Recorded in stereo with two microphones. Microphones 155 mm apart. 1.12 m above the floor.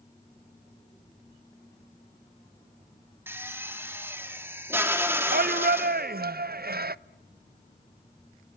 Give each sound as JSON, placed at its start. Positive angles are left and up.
{"t": 3.3, "sound": "a drill", "side_deg": -15, "distance_m": 2.5}
{"t": 5.3, "sound": "a shout", "side_deg": -70, "distance_m": 0.6}